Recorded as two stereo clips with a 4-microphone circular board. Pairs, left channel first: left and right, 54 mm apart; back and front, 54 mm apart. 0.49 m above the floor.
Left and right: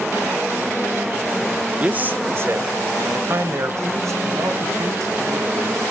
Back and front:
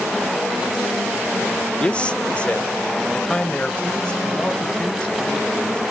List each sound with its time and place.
1.8 s a man speaking: 135° right, 0.8 m; by 5.8 s 110° right, 4 m